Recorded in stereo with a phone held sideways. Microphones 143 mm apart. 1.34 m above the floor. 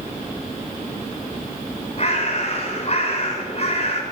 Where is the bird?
50° left (ahead or behind), 6 m.